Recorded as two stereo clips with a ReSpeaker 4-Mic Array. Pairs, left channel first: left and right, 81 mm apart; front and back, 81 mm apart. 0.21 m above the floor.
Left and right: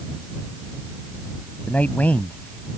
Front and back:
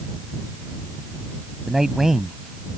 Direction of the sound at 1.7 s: 105° left.